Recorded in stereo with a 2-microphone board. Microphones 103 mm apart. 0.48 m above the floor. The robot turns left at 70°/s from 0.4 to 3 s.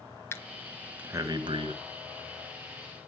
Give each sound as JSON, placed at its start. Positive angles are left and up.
{"t": 0.3, "sound": "breathing", "side_deg": 25, "distance_m": 1.5}